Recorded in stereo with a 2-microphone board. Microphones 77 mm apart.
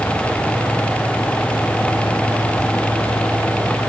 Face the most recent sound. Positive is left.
No sound to turn to.